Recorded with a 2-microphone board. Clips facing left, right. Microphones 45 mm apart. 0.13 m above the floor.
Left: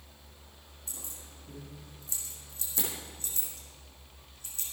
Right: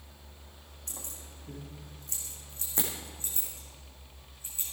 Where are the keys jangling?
60° right (ahead or behind), 5 m; by 4.6 s 20° right (ahead or behind), 6 m.